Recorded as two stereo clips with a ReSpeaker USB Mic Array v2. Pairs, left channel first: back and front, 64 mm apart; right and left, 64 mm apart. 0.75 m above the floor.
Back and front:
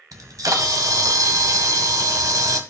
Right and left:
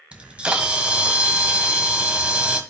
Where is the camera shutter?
20° left, 1.5 m.